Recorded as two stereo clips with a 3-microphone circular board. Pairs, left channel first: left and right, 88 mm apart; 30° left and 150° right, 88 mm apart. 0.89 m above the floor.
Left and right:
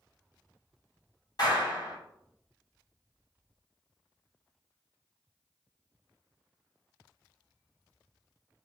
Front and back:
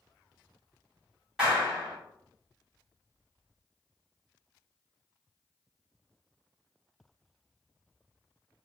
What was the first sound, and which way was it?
A clap, 130° left.